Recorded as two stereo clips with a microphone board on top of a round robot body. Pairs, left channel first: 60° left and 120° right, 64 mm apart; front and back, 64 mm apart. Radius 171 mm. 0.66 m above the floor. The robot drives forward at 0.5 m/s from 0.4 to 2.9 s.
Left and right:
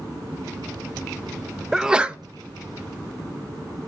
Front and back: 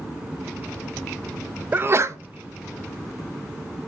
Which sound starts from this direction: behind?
A sneeze, at 1.7 s.